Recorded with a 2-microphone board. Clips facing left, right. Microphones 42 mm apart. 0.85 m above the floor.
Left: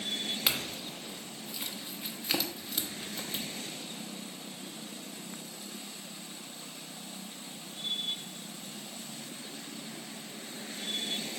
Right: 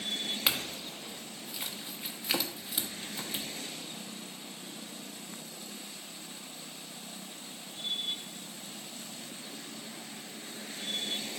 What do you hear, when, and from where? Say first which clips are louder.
0.5 s a clink: right 2 dB; 10° right (ahead or behind), 0.9 m